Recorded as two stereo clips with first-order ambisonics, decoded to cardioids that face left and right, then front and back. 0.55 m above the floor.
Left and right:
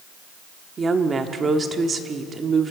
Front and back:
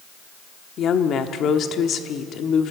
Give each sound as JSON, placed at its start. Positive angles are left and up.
{"t": 0.8, "sound": "a woman speaking", "azimuth_deg": -30, "distance_m": 1.1}